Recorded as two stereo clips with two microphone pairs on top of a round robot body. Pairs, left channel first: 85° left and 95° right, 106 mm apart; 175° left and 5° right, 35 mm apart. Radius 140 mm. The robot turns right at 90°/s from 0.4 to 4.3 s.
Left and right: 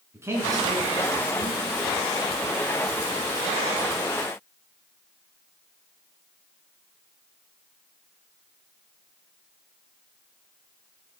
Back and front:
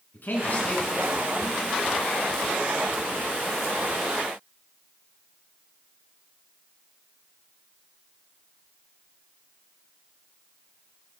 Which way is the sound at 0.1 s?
160° right.